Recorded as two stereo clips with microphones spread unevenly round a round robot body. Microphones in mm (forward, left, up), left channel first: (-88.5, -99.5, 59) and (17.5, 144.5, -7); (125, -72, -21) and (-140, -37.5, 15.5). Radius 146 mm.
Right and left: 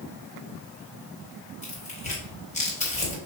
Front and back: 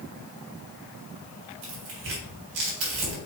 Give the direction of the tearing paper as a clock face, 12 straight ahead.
6 o'clock.